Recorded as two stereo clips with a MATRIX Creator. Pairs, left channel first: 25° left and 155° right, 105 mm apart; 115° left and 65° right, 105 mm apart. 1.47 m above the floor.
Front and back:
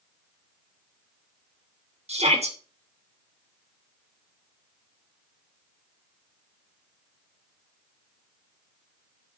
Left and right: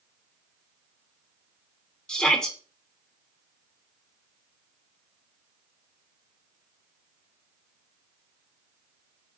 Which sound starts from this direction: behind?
A shout, at 2.1 s.